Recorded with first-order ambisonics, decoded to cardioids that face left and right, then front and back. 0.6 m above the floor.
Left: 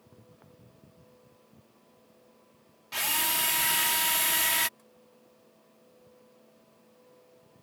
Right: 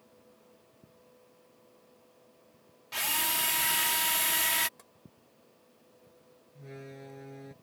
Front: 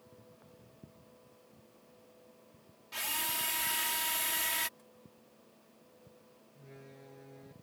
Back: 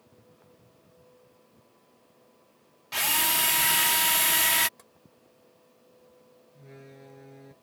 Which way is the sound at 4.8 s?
140° right.